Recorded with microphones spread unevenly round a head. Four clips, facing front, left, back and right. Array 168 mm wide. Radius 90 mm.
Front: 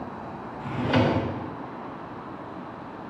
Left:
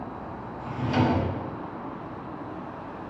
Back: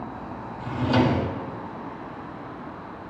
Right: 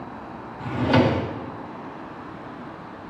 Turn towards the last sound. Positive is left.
turn(degrees=-85)